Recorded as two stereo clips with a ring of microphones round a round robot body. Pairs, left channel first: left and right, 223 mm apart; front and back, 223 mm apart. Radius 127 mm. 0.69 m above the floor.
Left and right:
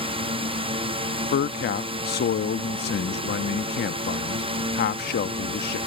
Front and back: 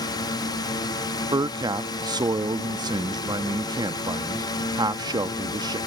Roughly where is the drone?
Ahead right.